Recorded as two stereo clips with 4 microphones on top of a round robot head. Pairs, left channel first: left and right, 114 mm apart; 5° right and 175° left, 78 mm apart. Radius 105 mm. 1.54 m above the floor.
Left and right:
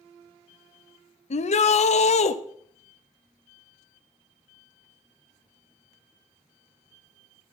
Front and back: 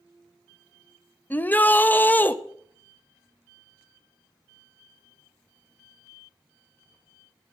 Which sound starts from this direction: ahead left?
A shout, at 1.3 s.